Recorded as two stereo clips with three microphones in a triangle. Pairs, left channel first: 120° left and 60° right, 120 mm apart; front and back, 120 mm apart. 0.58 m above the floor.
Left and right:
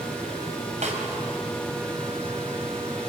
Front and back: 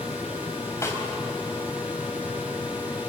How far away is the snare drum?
About 4.5 m.